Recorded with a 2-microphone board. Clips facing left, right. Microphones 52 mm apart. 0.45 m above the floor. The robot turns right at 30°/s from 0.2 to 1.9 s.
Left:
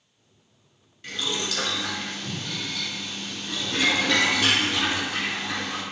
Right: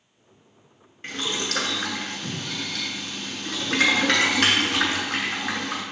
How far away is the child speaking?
I don't hear a child speaking.